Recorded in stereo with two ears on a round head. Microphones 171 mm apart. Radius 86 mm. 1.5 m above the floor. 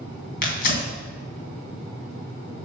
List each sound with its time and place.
0.4 s tearing paper: 50° left (ahead or behind), 2.5 m